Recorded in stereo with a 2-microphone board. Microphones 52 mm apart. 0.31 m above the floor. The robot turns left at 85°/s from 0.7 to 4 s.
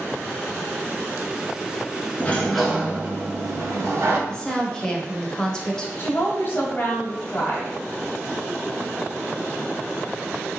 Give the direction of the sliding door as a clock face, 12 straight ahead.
11 o'clock.